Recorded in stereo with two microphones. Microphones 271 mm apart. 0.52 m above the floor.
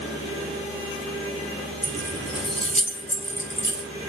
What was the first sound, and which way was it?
Keys jangling, 5° left (ahead or behind).